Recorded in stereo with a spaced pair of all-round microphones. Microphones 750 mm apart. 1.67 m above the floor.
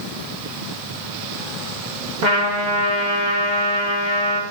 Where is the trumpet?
70° right (ahead or behind), 1.2 m.